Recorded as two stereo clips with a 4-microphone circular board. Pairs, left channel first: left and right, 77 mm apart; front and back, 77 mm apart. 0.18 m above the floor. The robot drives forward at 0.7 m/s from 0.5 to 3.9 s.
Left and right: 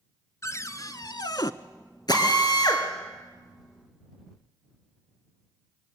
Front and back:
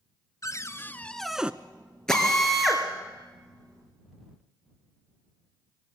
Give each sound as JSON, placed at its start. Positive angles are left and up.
{"t": 0.4, "sound": "a cupboard door", "azimuth_deg": 45, "distance_m": 0.8}
{"t": 2.1, "sound": "a drill", "azimuth_deg": 85, "distance_m": 2.5}